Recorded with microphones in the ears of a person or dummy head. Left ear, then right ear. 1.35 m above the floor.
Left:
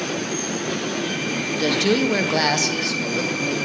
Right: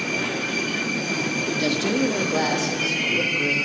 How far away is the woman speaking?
About 0.7 m.